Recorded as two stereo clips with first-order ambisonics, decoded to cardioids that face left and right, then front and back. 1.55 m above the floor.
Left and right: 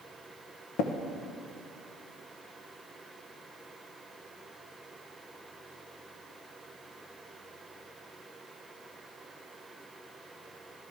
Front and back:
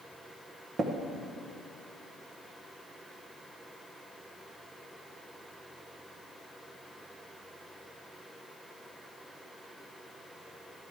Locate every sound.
0.8 s tapping: 115° left, 0.8 m